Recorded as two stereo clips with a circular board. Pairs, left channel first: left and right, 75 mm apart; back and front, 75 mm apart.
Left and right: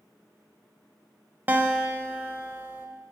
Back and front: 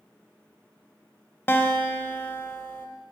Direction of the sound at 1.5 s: 140° right.